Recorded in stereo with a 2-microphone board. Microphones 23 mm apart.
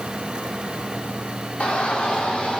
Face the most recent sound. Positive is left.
turn(degrees=80)